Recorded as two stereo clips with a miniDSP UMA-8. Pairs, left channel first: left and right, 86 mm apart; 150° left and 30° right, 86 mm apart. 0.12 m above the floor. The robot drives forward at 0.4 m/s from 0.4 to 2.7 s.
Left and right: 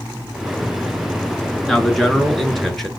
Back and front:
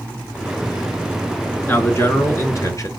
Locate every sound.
1.7 s a man speaking: 175° left, 1.2 m